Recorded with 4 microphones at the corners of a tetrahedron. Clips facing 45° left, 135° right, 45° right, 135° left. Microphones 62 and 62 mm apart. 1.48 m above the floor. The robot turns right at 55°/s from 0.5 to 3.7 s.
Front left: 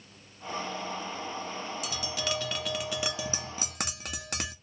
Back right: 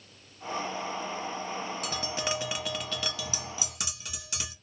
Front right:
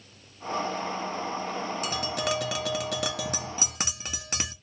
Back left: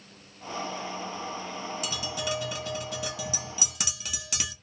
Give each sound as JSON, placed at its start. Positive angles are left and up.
{"t": 1.8, "sound": "tapping", "azimuth_deg": -95, "distance_m": 0.6}